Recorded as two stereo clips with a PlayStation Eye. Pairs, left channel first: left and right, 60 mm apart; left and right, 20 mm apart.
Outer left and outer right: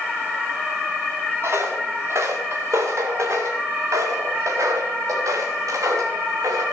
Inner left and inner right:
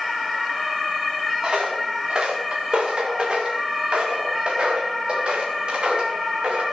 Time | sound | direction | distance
1.4 | footsteps | 50° right (ahead or behind) | 3.5 m